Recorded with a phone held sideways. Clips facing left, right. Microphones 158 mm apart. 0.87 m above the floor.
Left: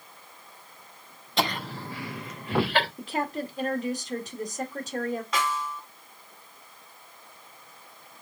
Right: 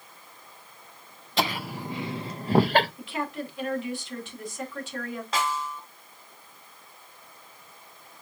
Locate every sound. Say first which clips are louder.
1.4 s laughter: even; centre (ahead or behind), 0.8 m; by 2.9 s 45° right (ahead or behind), 1.0 m
3.0 s a woman speaking: left 2 dB; 40° left (ahead or behind), 1.5 m
5.3 s a snare drum: even; 30° right (ahead or behind), 1.8 m